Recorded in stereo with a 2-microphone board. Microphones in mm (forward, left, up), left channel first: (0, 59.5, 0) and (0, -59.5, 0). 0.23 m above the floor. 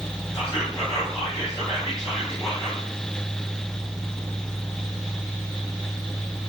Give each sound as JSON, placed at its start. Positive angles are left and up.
{"t": 0.3, "sound": "whispering", "side_deg": 30, "distance_m": 2.0}